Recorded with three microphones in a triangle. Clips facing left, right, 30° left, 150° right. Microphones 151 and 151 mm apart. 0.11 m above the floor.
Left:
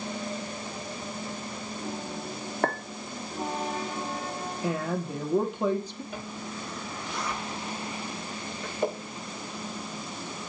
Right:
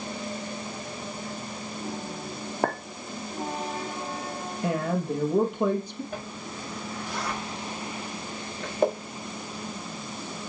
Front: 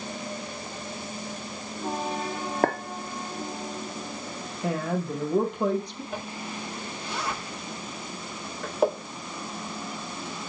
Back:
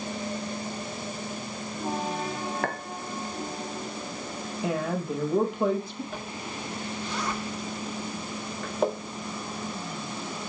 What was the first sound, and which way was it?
A clink, 15° right.